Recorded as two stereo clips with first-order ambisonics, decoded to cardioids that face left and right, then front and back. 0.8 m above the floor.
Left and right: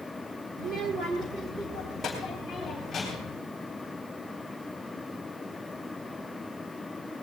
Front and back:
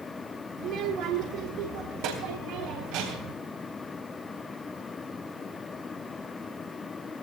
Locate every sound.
0.6 s a child speaking: 135° right, 1.5 m; by 3.3 s 165° left, 4 m